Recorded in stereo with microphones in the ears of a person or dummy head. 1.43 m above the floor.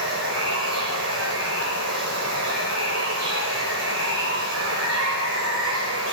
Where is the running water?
75° right (ahead or behind), 6.5 m.